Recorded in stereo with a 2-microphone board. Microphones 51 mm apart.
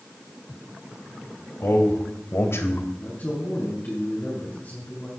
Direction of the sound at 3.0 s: 40° left (ahead or behind).